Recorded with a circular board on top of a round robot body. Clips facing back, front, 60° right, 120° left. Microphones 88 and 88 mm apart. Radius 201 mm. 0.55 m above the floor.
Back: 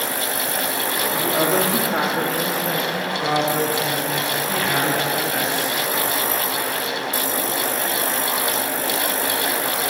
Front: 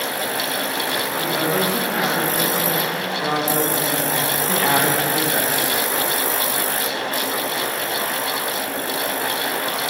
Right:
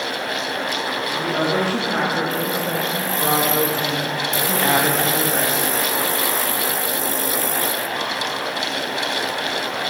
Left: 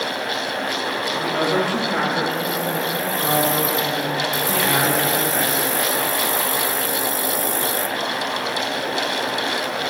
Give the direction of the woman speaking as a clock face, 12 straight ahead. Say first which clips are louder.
Back 2 dB, even; 4 o'clock.